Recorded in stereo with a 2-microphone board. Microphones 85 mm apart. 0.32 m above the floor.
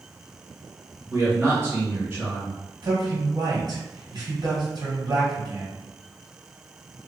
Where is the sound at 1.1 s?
30° right (ahead or behind), 2.0 m.